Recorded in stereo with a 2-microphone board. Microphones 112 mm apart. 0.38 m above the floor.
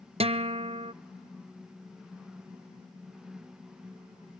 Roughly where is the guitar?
Right.